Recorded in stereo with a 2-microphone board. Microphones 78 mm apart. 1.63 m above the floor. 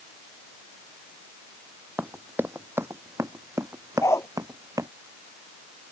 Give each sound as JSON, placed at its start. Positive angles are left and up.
{"t": 2.0, "sound": "running footsteps", "side_deg": -20}
{"t": 4.0, "sound": "a dog barking", "side_deg": 35}